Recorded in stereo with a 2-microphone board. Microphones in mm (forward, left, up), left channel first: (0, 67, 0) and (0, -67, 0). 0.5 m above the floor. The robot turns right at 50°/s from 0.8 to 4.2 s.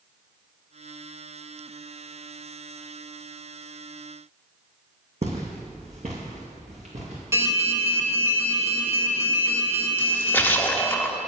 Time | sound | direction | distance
5.2 | footsteps | 55° right (ahead or behind) | 1.4 m
7.3 | an alarm | 20° right (ahead or behind) | 1.4 m
10.0 | a splash | 15° left (ahead or behind) | 0.5 m